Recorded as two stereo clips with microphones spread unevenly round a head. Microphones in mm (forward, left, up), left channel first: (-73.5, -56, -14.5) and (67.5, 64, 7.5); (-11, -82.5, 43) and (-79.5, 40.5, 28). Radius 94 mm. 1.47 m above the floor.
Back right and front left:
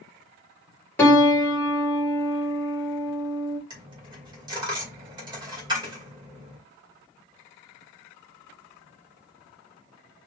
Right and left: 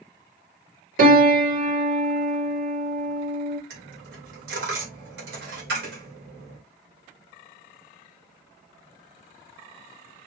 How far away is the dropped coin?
About 2 m.